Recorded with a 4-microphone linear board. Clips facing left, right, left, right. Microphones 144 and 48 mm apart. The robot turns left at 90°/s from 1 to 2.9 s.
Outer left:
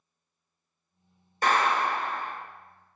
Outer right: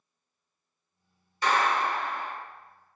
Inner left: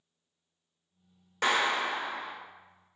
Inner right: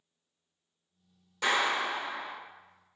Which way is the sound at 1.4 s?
125° left.